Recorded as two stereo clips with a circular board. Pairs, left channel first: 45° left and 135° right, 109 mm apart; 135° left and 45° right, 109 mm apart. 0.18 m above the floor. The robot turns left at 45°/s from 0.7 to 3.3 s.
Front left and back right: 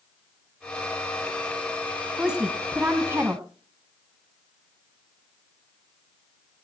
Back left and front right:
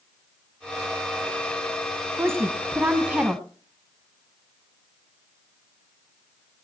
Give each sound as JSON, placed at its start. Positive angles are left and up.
{"t": 2.2, "sound": "a woman speaking", "azimuth_deg": -60, "distance_m": 1.5}